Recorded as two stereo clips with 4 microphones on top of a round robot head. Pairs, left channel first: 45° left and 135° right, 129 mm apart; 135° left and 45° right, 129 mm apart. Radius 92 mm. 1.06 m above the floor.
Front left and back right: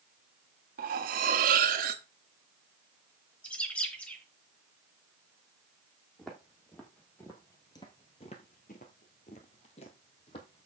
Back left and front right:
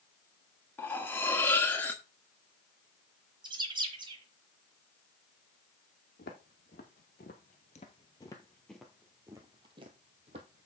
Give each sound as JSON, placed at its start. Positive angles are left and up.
{"t": 0.8, "sound": "cutlery clinking", "azimuth_deg": -150, "distance_m": 1.3}
{"t": 3.4, "sound": "a bird", "azimuth_deg": -30, "distance_m": 0.9}
{"t": 6.2, "sound": "footsteps", "azimuth_deg": 130, "distance_m": 2.5}